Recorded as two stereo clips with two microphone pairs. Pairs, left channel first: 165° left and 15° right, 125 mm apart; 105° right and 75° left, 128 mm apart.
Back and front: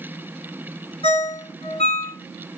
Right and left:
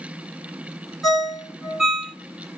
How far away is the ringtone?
About 0.9 m.